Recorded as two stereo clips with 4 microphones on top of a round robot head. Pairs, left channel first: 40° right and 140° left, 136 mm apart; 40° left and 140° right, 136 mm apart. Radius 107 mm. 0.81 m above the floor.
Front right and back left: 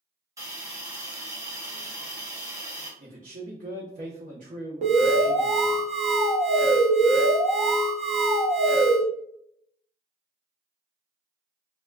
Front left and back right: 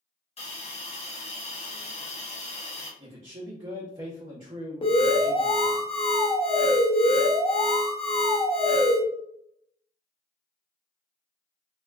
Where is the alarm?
95° left, 0.7 m.